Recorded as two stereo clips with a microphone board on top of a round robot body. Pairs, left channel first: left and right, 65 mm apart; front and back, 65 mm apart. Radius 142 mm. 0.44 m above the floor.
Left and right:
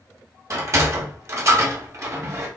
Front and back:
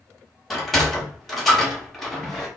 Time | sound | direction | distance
0.5 | a sliding door | 85° right | 1.8 m